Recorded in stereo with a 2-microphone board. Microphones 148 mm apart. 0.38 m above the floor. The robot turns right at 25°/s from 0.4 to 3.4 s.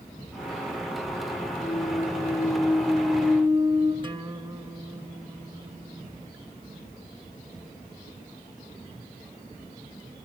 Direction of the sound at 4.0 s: 30° right (ahead or behind).